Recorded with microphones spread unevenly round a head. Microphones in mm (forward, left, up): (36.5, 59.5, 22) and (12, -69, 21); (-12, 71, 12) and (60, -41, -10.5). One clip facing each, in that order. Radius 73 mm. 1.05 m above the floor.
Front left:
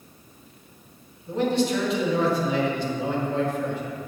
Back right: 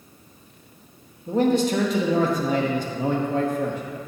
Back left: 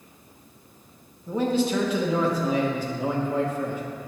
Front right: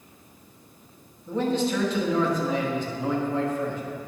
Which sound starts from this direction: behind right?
A man speaking, at 1.3 s.